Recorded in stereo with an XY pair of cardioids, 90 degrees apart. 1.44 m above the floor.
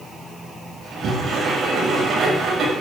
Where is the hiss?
I don't hear a hiss.